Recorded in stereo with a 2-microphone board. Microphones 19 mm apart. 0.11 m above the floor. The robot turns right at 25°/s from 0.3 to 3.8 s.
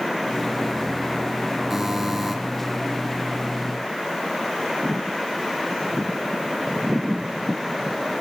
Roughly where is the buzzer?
Centre.